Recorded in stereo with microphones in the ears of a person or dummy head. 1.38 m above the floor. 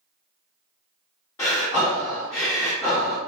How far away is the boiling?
No boiling in this recording.